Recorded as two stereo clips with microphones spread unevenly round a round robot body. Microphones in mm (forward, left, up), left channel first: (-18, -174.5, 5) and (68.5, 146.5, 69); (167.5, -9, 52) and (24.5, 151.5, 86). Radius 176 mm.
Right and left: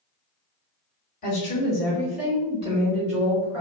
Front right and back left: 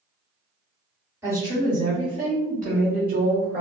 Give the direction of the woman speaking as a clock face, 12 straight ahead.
5 o'clock.